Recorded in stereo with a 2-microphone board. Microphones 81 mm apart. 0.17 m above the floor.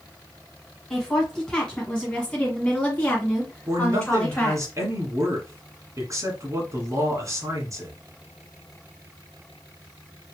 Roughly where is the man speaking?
Right.